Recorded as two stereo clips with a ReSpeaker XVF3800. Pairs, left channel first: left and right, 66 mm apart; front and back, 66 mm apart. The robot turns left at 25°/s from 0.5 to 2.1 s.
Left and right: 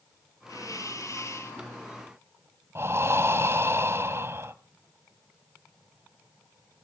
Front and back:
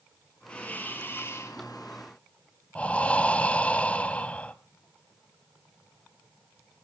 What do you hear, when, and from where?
0.5 s a hiss: 70° left, 5 m; by 1.6 s 45° left, 5 m
2.8 s breathing: 60° right, 0.9 m